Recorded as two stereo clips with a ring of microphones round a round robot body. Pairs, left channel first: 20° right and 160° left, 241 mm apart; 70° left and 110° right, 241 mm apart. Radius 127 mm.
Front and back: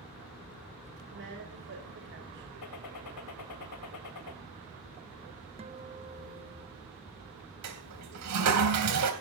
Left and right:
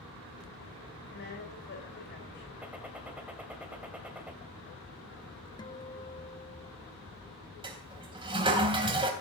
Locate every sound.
1.1 s a woman speaking: 115° left, 4.5 m
2.6 s a gunshot: 30° right, 2.5 m
5.6 s a guitar: 120° left, 0.9 m
7.6 s a toilet flushing: 175° left, 3.5 m